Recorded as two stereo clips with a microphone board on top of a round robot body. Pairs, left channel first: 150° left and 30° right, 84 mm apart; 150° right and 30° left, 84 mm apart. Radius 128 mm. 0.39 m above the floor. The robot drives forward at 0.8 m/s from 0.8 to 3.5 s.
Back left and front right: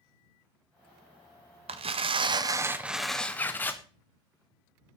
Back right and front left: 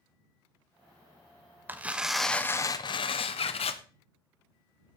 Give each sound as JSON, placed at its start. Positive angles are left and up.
{"t": 1.7, "sound": "tearing paper", "azimuth_deg": -40, "distance_m": 1.0}
{"t": 3.4, "sound": "a bird", "azimuth_deg": -145, "distance_m": 0.9}